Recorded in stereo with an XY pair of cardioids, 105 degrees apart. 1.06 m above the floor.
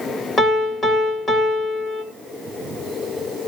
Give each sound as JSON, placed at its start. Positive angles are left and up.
{"t": 0.4, "sound": "a piano", "azimuth_deg": 55, "distance_m": 1.8}